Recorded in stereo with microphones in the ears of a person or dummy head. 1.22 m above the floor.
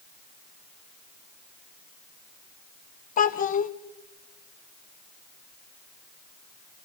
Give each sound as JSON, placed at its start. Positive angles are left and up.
{"t": 3.2, "sound": "a child speaking", "side_deg": 40, "distance_m": 0.9}